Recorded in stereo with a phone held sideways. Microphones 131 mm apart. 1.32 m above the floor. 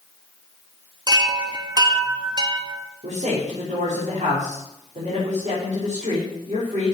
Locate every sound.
1.1 s a chime: 30° right (ahead or behind), 1.2 m
3.0 s a man speaking: 75° right (ahead or behind), 4.5 m